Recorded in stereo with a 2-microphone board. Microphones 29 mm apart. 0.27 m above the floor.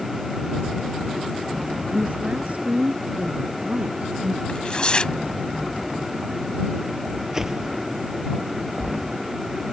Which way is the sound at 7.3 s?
15° right (ahead or behind).